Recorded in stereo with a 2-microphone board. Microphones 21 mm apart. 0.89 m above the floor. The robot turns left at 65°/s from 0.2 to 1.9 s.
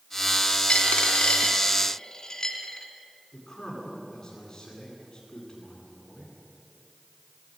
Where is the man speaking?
30° left (ahead or behind), 9.5 m.